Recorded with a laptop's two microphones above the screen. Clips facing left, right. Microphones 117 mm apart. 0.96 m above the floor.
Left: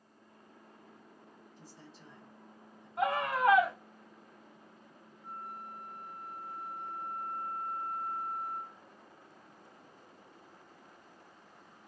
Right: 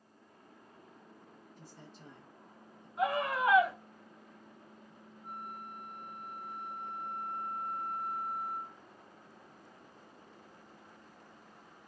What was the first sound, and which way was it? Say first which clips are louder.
A man speaking: right 1 dB; 55° right (ahead or behind).